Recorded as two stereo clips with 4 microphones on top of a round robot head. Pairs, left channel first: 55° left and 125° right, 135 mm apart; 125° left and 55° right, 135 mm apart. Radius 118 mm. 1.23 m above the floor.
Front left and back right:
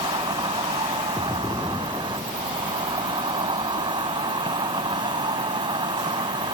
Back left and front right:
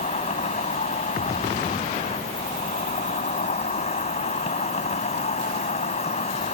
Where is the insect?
175° left.